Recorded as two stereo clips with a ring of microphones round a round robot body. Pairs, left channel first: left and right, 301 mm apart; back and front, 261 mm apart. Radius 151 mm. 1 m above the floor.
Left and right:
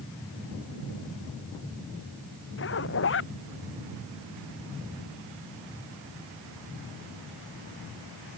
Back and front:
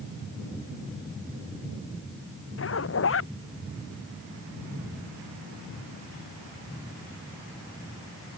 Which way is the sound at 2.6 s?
140° left.